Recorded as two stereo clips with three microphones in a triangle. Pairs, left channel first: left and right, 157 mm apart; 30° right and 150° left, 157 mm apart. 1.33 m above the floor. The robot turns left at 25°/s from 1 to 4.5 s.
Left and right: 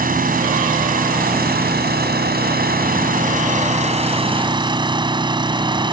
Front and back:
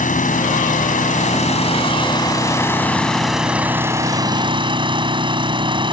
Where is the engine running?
65° right; by 5.9 s 150° right.